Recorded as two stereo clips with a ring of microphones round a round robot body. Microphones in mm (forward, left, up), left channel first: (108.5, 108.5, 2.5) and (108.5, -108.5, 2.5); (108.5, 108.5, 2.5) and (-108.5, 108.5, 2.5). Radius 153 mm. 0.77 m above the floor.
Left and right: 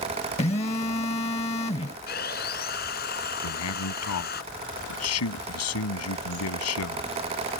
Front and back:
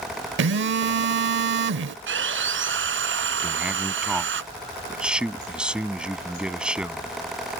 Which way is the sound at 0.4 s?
155° left.